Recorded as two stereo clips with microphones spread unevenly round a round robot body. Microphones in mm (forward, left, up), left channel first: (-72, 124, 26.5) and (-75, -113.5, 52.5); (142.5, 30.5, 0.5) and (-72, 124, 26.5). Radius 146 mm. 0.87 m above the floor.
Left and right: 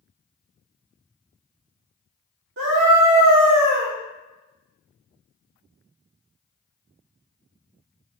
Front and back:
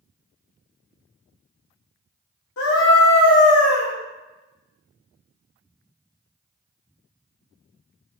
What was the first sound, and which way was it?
A scream, 45° right.